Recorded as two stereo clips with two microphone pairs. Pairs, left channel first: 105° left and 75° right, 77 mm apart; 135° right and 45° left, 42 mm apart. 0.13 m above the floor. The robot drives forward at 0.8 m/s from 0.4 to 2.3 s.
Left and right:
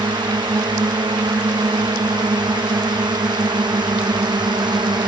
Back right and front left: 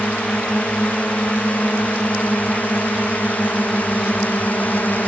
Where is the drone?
75° right; by 5.1 s 85° right.